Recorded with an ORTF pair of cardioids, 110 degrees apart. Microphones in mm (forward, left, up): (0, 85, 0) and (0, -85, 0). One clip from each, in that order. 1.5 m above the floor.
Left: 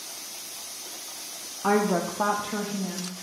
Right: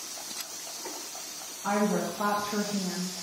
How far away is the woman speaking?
About 0.8 m.